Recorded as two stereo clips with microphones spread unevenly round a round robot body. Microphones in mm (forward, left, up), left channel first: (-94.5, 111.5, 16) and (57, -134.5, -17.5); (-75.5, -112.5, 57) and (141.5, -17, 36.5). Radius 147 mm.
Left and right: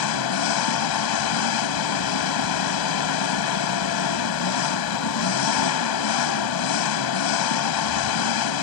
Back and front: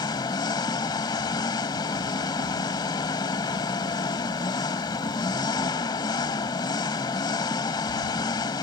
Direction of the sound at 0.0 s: 130° left.